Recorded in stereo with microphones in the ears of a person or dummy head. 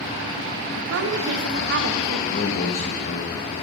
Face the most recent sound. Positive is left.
turn(degrees=40)  # may be behind; listen again after turning